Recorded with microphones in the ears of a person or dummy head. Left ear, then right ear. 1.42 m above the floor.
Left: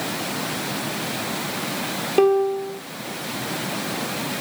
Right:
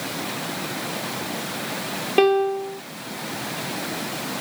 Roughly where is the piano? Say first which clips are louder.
Even; centre.